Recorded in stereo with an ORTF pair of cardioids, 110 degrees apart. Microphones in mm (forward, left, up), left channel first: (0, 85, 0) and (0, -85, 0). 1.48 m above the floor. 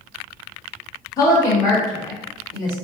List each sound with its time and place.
1.2 s a woman speaking: 25° left, 1.0 m